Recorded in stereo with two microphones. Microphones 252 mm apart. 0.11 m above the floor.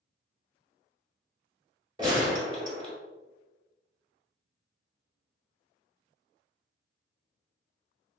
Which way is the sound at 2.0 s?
20° right (ahead or behind).